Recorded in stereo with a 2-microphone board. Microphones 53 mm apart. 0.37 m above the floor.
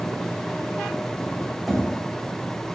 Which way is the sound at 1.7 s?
Centre (ahead or behind).